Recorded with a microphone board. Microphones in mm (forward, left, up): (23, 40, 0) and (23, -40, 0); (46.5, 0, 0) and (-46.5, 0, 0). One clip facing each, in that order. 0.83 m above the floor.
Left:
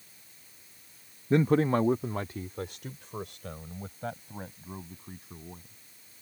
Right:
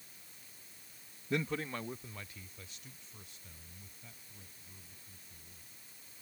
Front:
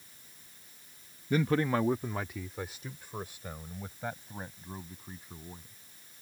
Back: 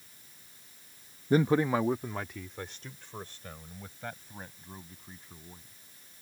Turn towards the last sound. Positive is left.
turn(degrees=75)